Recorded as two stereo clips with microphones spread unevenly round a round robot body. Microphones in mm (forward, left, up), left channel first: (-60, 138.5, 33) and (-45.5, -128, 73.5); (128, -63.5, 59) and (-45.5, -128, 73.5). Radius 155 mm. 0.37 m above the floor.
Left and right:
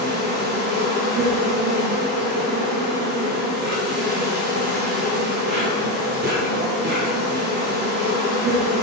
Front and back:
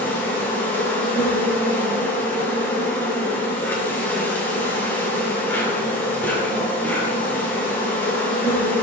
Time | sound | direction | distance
0.0 | an insect | 50° right | 1.9 m